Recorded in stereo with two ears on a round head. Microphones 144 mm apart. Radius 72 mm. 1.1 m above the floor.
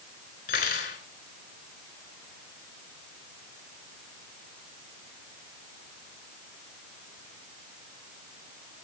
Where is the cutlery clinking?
55° left (ahead or behind), 3.5 m.